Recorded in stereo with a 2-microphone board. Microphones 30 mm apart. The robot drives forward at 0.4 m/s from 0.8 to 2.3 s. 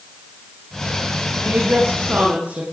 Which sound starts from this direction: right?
A woman speaking, at 1.4 s.